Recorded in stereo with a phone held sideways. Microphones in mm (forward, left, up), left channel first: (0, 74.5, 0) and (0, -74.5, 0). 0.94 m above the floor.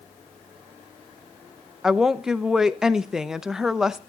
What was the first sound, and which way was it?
A woman speaking, 5° right (ahead or behind).